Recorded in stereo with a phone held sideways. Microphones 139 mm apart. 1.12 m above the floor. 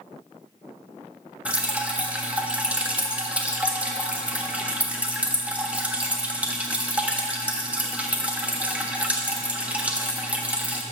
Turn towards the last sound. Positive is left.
turn(degrees=-10)  # may be behind; listen again after turning